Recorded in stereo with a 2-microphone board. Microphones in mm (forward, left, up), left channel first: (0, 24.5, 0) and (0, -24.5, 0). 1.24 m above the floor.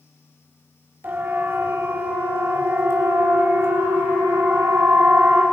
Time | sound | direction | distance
1.0 | a siren | 50° right (ahead or behind) | 6 m